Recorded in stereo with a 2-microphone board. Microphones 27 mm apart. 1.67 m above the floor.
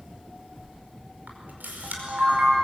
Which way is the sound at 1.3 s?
85° right.